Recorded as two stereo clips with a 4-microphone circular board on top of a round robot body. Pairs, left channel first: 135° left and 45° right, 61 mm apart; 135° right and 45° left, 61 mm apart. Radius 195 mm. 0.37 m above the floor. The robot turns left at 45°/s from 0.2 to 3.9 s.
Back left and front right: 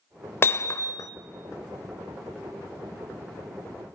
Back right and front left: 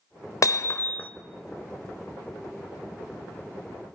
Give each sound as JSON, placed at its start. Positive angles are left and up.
{"t": 0.4, "sound": "hammering", "azimuth_deg": -170, "distance_m": 1.0}